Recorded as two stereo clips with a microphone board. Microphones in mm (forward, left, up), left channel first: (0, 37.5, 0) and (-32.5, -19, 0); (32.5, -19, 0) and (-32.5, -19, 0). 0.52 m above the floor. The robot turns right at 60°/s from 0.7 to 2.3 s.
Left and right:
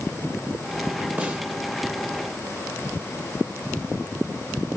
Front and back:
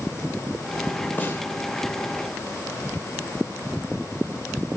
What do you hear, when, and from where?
1.2 s a snare drum: 55° right, 2 m; by 1.4 s 45° right, 2 m